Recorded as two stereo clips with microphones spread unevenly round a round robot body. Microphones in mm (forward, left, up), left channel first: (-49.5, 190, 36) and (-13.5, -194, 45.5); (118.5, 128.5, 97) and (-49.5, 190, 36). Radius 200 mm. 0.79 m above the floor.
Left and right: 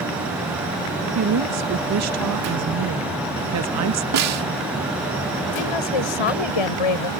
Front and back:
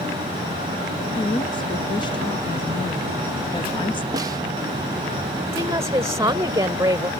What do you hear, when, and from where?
1.1 s a woman speaking: 95° right
4.1 s a snare drum: 130° right
5.5 s a woman speaking: 90° left